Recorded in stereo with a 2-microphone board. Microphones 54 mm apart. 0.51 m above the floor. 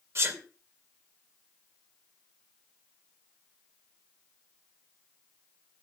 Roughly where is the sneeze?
Right.